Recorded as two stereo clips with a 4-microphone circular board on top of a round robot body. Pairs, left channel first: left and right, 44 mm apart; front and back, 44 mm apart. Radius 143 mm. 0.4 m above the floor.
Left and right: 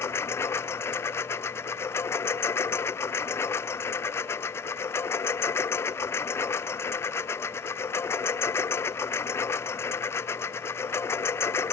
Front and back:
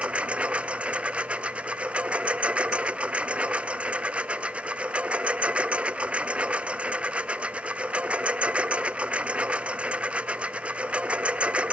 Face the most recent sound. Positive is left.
turn(degrees=120)